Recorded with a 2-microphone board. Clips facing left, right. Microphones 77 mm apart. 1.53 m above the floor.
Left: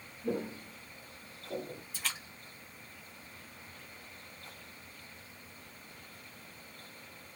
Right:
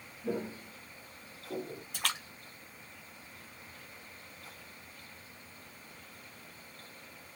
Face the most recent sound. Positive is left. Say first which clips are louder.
# right 5 dB
turn(degrees=-70)  # may be behind; listen again after turning